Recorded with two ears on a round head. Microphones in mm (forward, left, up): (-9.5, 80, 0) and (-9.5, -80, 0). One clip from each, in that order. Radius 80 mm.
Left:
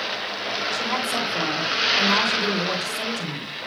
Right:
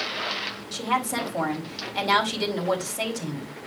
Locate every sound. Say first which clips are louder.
0.7 s a woman speaking: right 2 dB; 40° right (ahead or behind), 3.5 m